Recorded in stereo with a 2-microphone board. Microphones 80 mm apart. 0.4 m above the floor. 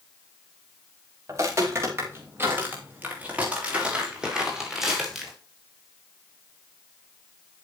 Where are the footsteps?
40° right (ahead or behind), 6.5 m; by 5.3 s centre (ahead or behind), 7 m.